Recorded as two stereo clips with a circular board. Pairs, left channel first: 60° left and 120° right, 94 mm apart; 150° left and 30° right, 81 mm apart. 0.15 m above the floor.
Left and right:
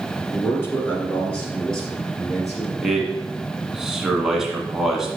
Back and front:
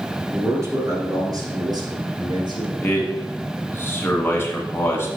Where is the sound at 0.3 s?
15° left, 1.9 m; by 2.7 s 35° right, 3 m.